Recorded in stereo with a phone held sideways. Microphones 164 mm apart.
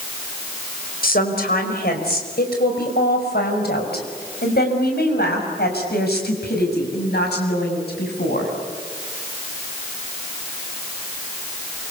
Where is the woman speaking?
70° left (ahead or behind), 4.5 m; by 8.5 s 80° left, 7.5 m.